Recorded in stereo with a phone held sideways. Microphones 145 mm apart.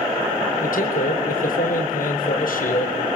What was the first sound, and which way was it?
A man speaking, 75° left (ahead or behind).